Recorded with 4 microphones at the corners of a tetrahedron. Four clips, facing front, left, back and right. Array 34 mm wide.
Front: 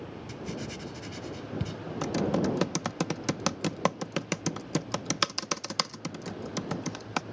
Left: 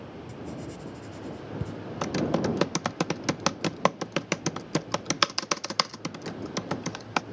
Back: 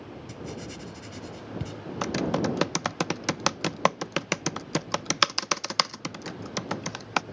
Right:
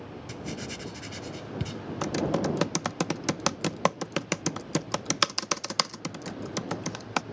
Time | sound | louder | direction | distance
0.3 | writing | right 3 dB, front 1 dB | 75° right | ?
2.0 | typing on a keyboard | left 1 dB, back 1 dB | 165° left | ?